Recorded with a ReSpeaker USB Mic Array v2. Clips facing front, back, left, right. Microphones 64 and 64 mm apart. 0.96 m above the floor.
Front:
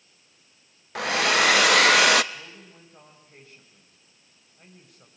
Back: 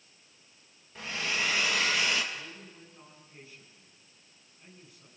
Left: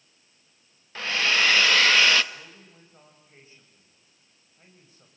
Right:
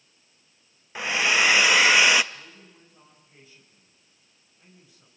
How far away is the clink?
No clink in this recording.